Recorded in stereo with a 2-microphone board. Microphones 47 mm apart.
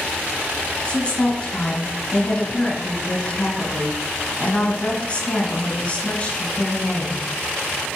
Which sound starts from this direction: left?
A woman speaking, at 0.8 s.